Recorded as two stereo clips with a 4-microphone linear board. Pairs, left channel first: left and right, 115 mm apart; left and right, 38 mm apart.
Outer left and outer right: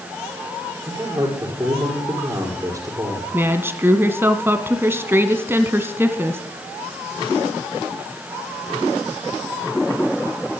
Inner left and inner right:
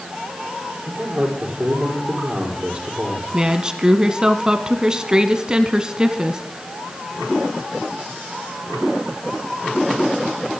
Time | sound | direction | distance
0.9 | a man speaking | 30° right (ahead or behind) | 4 m
3.3 | a woman speaking | 20° right (ahead or behind) | 1.0 m